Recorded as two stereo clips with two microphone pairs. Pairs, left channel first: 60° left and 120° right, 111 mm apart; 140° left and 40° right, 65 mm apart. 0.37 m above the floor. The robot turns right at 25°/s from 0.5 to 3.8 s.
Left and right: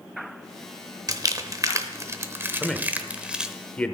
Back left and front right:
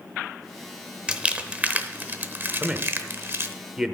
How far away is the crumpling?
About 0.9 m.